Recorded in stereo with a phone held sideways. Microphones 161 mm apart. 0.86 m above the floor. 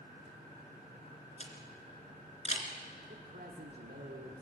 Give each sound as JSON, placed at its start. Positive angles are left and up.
{"t": 1.4, "sound": "a camera shutter", "side_deg": 45, "distance_m": 3.0}
{"t": 3.1, "sound": "a man speaking", "side_deg": -80, "distance_m": 2.0}